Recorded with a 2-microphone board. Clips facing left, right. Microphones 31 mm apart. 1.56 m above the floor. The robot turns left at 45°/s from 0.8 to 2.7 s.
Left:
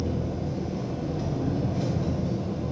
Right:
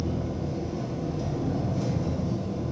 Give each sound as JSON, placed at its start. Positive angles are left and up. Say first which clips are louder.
{"t": 0.0, "sound": "an engine running", "louder": "left 1 dB", "azimuth_deg": 165, "distance_m": 0.8}